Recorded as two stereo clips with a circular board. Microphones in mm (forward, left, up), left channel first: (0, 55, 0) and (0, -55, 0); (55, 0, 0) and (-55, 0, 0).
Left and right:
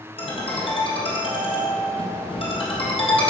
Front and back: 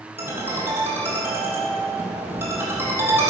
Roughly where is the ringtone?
Left.